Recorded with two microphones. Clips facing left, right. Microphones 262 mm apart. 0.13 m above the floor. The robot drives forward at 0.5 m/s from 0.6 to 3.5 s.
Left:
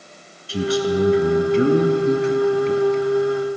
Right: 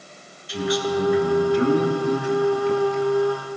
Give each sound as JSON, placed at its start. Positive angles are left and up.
{"t": 0.5, "sound": "a man speaking", "side_deg": 35, "distance_m": 1.3}